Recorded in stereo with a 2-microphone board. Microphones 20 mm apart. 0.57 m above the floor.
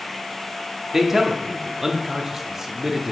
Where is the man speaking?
15° right (ahead or behind), 0.7 m.